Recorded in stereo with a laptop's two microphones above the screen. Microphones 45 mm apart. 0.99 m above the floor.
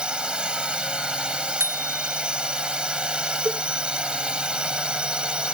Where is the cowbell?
25° right (ahead or behind).